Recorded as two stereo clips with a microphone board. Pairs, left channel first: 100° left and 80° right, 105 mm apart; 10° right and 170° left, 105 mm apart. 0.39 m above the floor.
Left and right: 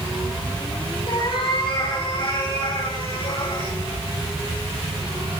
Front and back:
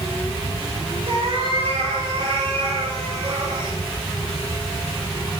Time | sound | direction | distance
1.1 | a cat meowing | 140° left | 6.5 m